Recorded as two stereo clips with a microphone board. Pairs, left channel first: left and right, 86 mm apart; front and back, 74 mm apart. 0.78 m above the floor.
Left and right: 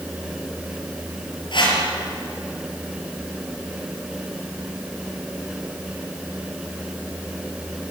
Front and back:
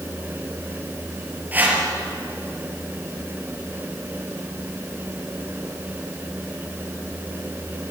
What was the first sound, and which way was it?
A whoosh, 115° left.